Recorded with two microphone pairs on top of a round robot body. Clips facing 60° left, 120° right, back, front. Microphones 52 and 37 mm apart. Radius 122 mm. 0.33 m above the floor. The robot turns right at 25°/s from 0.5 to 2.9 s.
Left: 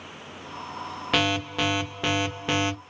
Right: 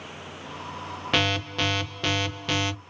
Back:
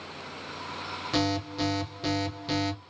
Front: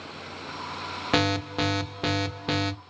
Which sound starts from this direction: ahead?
An alarm, at 1.1 s.